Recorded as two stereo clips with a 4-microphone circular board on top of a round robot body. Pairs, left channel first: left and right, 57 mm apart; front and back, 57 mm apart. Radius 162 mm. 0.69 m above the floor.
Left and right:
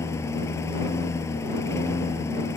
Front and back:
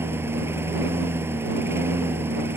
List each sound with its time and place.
0.0 s a lawn mower: 130° left